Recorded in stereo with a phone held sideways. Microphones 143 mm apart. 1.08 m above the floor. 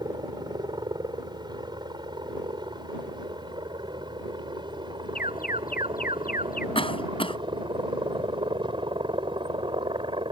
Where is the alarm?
80° left.